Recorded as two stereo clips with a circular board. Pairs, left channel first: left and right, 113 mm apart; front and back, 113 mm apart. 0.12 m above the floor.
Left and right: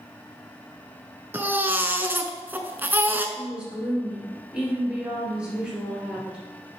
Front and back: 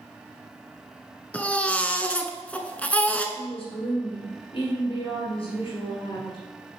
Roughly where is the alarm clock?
I don't hear an alarm clock.